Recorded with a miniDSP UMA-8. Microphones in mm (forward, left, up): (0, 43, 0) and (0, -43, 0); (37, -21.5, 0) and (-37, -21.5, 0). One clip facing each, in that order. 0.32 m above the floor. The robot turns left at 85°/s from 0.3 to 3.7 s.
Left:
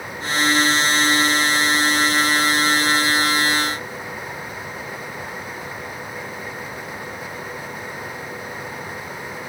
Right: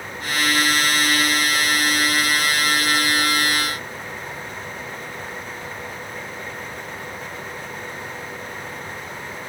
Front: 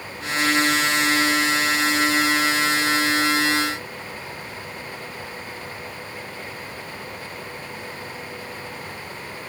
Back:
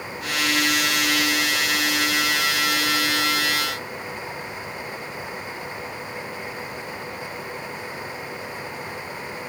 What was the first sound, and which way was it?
Only background noise.